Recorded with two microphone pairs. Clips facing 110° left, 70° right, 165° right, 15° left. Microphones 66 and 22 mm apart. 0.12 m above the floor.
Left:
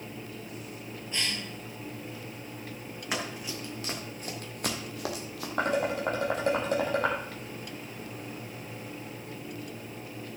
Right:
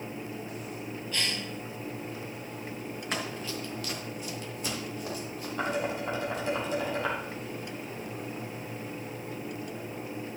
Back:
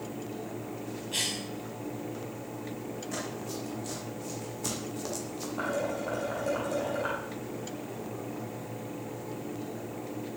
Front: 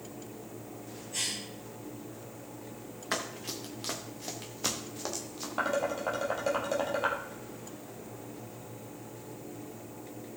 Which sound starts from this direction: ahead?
Running footsteps, at 3.1 s.